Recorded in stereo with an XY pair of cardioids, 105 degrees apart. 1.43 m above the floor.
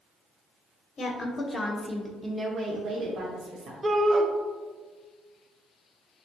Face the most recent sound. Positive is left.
turn(degrees=-20)